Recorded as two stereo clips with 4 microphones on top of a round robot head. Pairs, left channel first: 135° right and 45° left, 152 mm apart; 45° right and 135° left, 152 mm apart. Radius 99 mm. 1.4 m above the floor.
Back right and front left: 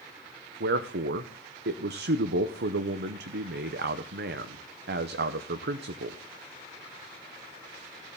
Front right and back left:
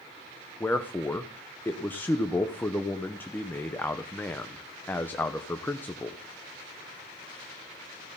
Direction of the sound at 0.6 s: 35° left.